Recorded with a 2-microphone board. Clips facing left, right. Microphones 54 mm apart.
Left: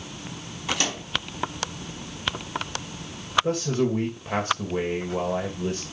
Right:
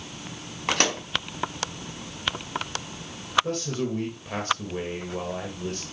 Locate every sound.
0.7 s a microwave: 55° right (ahead or behind), 1.9 m
3.4 s a man speaking: 25° left (ahead or behind), 2 m